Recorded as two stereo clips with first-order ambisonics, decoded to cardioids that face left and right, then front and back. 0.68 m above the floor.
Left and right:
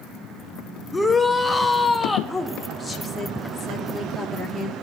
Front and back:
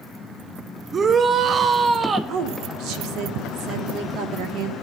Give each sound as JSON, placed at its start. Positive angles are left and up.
{"t": 0.9, "sound": "a shout", "azimuth_deg": 155, "distance_m": 0.6}
{"t": 2.3, "sound": "a woman speaking", "azimuth_deg": 170, "distance_m": 1.3}